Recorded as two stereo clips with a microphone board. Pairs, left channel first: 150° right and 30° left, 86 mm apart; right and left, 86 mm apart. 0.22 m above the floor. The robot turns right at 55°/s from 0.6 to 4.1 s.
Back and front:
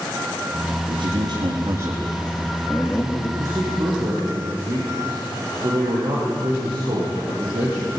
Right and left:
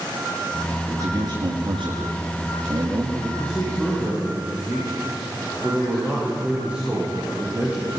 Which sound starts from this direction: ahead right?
A man speaking, at 3.4 s.